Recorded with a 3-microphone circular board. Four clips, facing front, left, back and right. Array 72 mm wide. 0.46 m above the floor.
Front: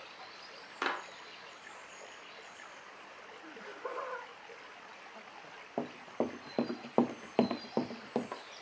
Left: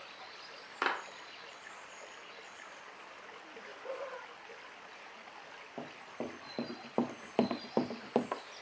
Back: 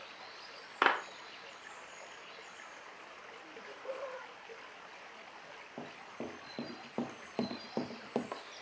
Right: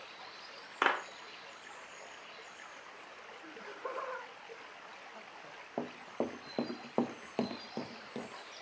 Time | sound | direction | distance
0.8 | a clap | 160° right | 0.9 m
3.4 | laughter | 55° right | 3 m
5.8 | running footsteps | 35° right | 1.3 m